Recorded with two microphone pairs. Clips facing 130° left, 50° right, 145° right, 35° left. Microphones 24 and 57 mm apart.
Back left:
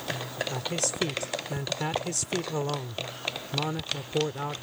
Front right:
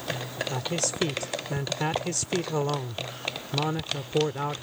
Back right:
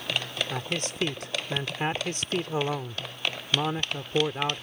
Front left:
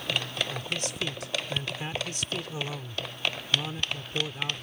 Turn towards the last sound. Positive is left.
turn(degrees=-120)